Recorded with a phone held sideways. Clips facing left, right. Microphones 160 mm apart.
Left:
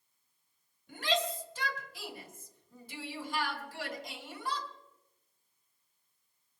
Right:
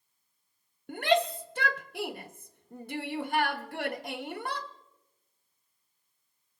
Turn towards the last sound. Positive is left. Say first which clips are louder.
# right 7 dB
turn(degrees=-60)  # may be behind; listen again after turning